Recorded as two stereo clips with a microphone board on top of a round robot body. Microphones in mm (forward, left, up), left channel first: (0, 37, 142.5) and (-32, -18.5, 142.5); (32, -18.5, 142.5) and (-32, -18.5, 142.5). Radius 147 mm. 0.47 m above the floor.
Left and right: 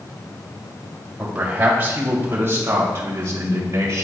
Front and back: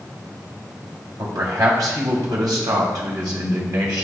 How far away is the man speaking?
About 2.5 m.